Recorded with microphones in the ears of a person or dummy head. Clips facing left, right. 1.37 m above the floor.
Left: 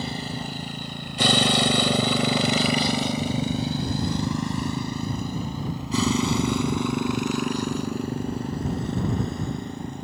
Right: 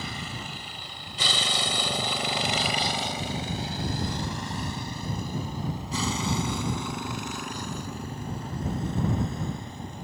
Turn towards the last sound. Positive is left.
turn(degrees=50)  # may be behind; listen again after turning